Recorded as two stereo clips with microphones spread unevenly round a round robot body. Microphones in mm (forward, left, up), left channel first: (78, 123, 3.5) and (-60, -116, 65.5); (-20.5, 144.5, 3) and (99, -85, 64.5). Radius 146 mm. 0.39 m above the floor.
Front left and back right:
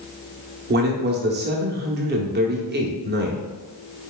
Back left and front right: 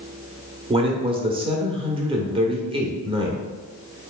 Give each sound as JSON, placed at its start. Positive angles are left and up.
{"t": 0.7, "sound": "a man speaking", "azimuth_deg": -140, "distance_m": 0.9}